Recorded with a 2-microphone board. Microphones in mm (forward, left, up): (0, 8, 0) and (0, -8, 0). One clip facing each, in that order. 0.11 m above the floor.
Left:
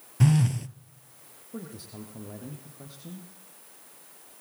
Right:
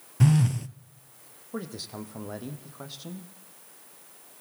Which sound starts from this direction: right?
A man speaking, at 1.5 s.